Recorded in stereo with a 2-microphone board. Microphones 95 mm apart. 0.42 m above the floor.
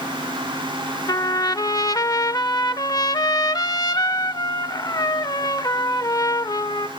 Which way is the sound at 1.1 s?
45° left (ahead or behind).